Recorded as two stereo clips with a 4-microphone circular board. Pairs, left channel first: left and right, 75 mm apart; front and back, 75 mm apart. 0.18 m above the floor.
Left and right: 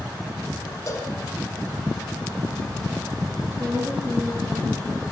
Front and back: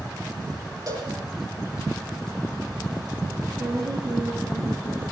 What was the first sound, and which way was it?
A cowbell, 145° left.